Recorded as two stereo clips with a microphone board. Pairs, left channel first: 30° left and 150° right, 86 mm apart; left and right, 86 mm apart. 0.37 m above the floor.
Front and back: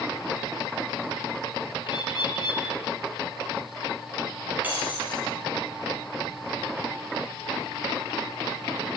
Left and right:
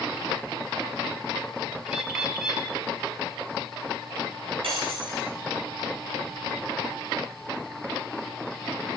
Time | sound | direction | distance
1.9 | a bird | 5° right | 3.5 m
4.6 | breaking glass | 80° right | 9.5 m